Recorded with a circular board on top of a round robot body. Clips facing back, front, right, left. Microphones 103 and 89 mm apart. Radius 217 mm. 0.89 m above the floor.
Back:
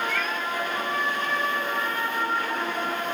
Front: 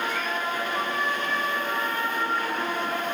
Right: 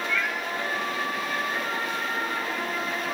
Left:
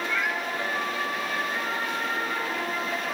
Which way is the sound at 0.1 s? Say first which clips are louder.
Even, left 1 dB; 160° left.